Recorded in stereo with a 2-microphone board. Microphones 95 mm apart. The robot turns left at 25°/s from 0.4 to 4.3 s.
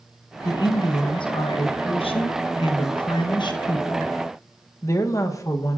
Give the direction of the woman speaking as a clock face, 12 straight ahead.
8 o'clock.